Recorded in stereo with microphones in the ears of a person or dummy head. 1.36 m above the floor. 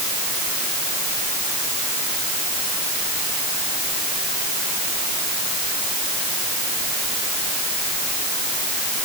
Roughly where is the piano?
I don't hear a piano.